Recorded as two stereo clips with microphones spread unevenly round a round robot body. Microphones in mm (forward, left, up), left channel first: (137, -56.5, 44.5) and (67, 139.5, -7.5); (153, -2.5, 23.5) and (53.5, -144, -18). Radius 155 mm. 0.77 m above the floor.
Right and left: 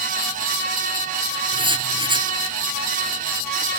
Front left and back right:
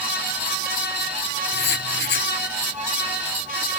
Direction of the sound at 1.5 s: 40° left.